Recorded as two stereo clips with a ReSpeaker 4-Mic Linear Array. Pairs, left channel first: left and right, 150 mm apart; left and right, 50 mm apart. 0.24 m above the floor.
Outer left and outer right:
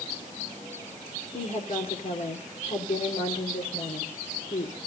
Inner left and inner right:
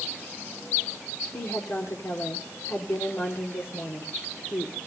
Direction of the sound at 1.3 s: 50° left (ahead or behind).